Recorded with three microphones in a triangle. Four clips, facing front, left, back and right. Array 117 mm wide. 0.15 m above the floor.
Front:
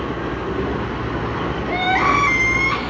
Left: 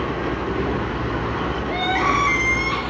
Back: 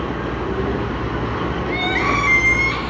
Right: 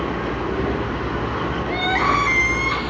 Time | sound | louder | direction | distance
1.7 | crying | right 1 dB, front 5 dB | 35° right | 3 m